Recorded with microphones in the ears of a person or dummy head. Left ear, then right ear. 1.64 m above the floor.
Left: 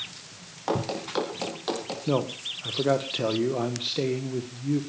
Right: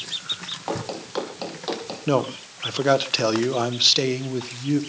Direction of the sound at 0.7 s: 10° left (ahead or behind).